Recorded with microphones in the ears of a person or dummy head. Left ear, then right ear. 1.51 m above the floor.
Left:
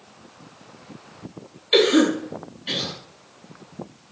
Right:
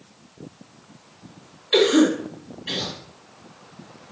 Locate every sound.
1.7 s a cough: 10° left (ahead or behind), 2.5 m